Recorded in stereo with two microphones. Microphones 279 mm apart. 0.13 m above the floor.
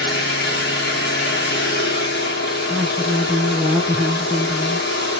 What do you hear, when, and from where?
0.0 s an engine running: 35° left (ahead or behind), 2.5 m
2.7 s a woman speaking: 5° right (ahead or behind), 1.3 m